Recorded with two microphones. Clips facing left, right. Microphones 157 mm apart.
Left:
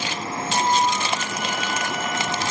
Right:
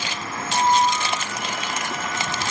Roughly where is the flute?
Left.